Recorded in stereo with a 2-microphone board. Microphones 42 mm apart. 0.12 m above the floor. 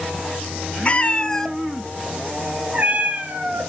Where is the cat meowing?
30° left (ahead or behind), 1.0 m; by 3.7 s 45° right (ahead or behind), 1.5 m.